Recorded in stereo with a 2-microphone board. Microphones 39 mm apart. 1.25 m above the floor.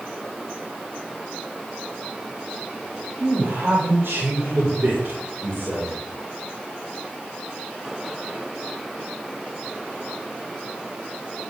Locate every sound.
3.2 s a man speaking: 85° right, 6.5 m